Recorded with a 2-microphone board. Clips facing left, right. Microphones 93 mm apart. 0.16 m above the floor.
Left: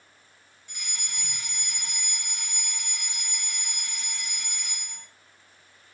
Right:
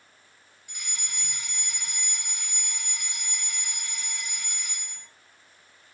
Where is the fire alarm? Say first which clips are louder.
Even; 5° right (ahead or behind), 2.5 m.